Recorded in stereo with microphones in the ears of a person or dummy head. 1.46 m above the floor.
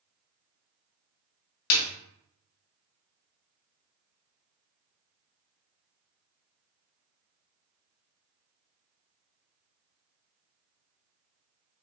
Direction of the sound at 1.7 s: 55° left (ahead or behind).